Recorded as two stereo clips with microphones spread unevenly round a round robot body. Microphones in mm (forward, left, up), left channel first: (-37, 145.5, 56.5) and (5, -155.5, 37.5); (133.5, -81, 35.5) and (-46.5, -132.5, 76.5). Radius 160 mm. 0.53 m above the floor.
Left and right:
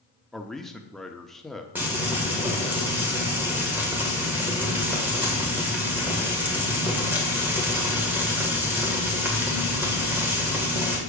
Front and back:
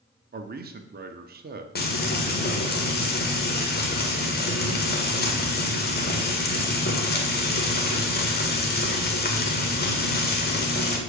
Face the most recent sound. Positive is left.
turn(degrees=0)